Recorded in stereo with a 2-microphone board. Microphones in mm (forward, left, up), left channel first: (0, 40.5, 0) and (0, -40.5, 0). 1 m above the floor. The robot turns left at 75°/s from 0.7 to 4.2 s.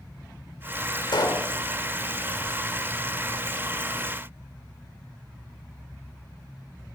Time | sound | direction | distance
1.1 | a pop | 65° left | 2.5 m